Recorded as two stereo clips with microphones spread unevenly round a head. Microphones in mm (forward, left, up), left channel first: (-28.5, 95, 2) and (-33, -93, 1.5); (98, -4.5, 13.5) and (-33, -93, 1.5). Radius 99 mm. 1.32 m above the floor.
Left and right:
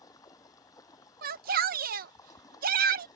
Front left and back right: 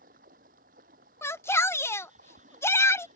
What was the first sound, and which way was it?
Running water, 160° left.